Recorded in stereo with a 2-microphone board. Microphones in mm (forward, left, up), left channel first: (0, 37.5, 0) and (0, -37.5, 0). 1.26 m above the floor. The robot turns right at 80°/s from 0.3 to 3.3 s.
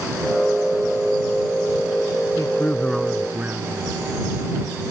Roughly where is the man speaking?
Behind left.